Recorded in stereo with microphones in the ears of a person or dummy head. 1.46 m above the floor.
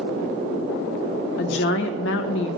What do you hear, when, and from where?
1.4 s a woman speaking: 65° left (ahead or behind), 1.1 m